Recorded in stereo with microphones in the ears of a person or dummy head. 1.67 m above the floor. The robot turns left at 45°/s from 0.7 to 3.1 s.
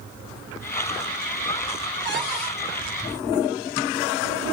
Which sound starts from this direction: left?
A cupboard door, at 2.0 s.